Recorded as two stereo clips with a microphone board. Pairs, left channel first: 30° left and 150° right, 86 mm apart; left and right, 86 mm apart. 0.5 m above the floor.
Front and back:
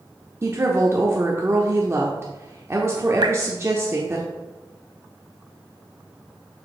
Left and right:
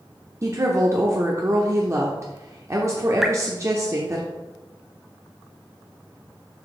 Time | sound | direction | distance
0.4 | a woman speaking | 115° right | 0.8 m
3.2 | dripping | 175° right | 0.6 m